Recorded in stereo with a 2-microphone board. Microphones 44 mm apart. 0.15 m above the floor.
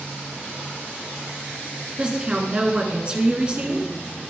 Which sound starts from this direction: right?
A woman speaking, at 2.0 s.